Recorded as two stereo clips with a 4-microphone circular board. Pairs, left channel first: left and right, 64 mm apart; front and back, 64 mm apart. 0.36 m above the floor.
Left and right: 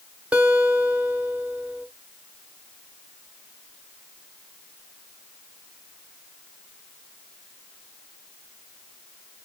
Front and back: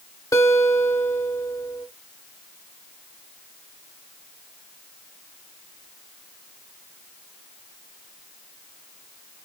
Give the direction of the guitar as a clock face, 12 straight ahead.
1 o'clock.